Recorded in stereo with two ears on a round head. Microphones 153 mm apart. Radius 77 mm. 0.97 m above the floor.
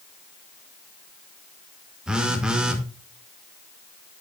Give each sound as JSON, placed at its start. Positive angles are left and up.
{"t": 2.1, "sound": "a phone buzzing", "side_deg": -5, "distance_m": 1.0}